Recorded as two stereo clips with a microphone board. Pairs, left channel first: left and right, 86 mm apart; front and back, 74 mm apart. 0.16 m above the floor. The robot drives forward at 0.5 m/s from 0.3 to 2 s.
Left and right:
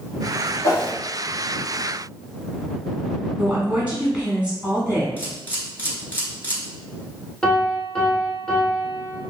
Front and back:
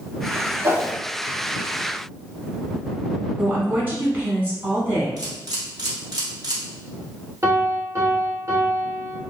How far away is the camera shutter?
About 0.9 m.